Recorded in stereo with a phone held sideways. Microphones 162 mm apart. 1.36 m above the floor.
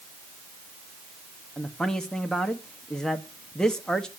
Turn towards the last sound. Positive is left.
turn(degrees=5)  # may be behind; listen again after turning